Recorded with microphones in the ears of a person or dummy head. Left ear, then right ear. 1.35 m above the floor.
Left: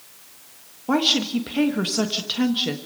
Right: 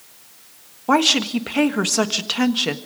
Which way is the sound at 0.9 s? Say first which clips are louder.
Right 4 dB; 30° right (ahead or behind).